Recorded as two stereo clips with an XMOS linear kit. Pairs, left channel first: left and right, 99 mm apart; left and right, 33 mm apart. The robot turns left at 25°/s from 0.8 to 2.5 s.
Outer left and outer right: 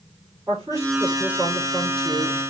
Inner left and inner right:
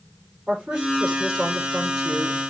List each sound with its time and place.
0.5 s a woman speaking: 150° right, 4.5 m; by 2.4 s 170° left, 4.5 m